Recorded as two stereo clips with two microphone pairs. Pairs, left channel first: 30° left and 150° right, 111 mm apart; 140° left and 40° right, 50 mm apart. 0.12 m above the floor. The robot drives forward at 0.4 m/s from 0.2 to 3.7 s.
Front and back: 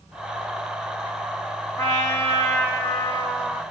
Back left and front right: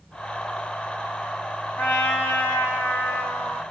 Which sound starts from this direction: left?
A trumpet, at 1.8 s.